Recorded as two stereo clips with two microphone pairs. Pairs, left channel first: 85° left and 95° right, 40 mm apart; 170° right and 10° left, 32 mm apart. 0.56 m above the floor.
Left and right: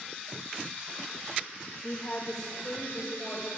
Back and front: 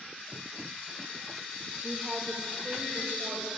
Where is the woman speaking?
45° left, 1.0 m; by 3.5 s 20° left, 2.5 m.